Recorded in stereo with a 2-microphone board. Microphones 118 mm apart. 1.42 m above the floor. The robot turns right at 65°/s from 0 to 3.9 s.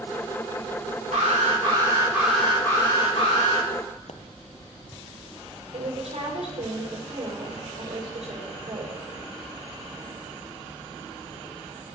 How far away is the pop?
About 0.9 m.